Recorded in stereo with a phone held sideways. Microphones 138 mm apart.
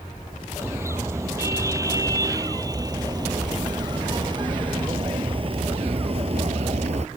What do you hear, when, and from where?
0.6 s a car horn: 20° right (ahead or behind); by 7.1 s 50° right (ahead or behind)